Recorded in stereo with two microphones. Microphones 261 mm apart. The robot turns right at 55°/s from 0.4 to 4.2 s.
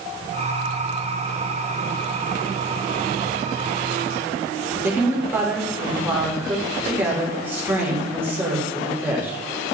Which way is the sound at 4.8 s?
10° right (ahead or behind).